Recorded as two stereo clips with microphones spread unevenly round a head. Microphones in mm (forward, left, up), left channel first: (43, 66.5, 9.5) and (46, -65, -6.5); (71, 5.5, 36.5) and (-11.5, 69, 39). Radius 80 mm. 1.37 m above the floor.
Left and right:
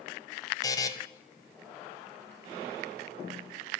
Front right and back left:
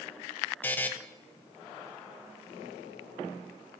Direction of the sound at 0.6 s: 35° left.